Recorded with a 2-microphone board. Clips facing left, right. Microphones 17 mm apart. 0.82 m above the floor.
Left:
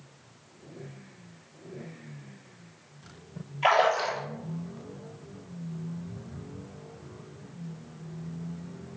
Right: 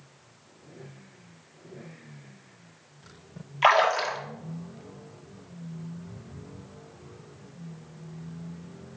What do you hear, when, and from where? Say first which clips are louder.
3.6 s a splash: right 2 dB; 70° right (ahead or behind), 1.5 m